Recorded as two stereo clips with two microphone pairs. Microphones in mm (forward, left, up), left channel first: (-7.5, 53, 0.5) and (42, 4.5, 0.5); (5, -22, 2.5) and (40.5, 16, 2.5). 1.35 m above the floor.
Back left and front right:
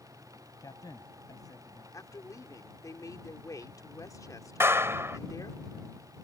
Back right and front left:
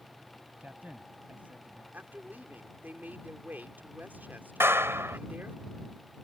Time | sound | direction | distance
0.6 | a man speaking | 105° left | ?
1.9 | a woman speaking | 100° left | ?
4.6 | a clap | 10° left | ?